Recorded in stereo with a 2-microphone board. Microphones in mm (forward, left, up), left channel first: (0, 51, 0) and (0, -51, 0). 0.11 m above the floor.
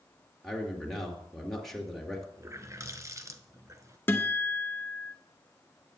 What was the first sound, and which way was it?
A man speaking, centre (ahead or behind).